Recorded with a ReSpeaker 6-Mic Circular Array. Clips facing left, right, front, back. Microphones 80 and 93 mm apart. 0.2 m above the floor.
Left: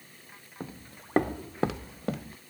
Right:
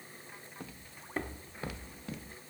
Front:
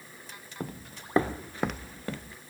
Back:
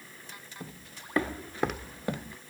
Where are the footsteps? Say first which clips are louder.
Left 10 dB, front 9 dB; 25° left, 1.0 m; by 2.4 s 110° left, 1.5 m.